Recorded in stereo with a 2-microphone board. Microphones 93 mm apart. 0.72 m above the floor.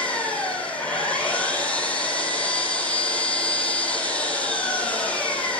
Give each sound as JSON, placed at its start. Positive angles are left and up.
{"t": 0.0, "sound": "an engine running", "side_deg": 10, "distance_m": 7.0}